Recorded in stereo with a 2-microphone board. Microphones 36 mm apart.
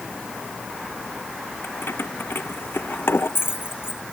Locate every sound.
1.6 s keys jangling: 85° left